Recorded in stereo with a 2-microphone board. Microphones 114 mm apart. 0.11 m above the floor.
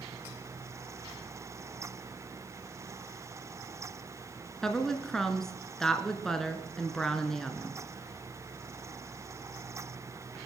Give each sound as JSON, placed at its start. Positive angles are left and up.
{"t": 4.6, "sound": "a woman speaking", "side_deg": 5, "distance_m": 1.4}